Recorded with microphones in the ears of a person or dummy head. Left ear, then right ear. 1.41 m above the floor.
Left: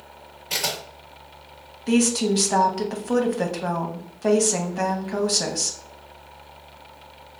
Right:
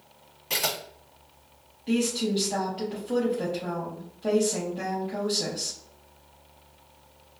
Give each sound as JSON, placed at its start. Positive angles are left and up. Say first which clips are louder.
{"t": 0.5, "sound": "a camera shutter", "louder": "left 2 dB", "side_deg": -35, "distance_m": 1.7}
{"t": 1.9, "sound": "a woman speaking", "louder": "left 6 dB", "side_deg": 55, "distance_m": 0.7}